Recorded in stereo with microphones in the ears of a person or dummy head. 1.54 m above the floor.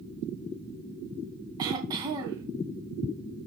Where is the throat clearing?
25° right (ahead or behind), 3 m.